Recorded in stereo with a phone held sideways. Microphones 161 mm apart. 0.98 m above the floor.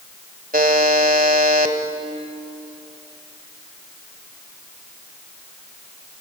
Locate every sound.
0.5 s a buzzer: 60° right (ahead or behind), 1.5 m